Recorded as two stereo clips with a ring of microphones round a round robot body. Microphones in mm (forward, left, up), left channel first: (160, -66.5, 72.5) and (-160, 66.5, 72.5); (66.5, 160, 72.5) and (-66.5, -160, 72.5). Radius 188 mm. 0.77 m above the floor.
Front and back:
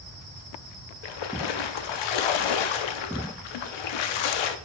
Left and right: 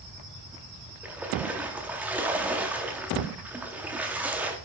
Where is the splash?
25° right, 0.7 m.